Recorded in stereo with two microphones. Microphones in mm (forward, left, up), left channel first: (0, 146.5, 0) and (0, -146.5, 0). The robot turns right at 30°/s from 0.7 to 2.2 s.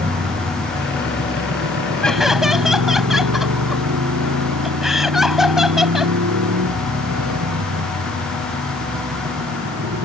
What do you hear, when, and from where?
0.0 s a motorcycle: 35° right (ahead or behind); by 10.1 s 85° right
2.0 s laughter: 5° left (ahead or behind); by 6.2 s centre (ahead or behind)